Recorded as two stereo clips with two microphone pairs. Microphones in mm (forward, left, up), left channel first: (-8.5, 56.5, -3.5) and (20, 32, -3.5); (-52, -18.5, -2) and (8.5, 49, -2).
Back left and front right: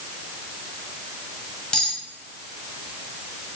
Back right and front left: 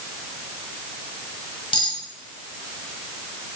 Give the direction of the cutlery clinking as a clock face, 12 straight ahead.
5 o'clock.